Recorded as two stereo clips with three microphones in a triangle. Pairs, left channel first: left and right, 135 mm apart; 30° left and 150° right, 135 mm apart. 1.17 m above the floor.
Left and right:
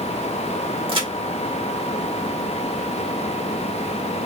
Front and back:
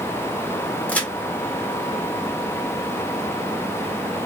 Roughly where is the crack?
Ahead right.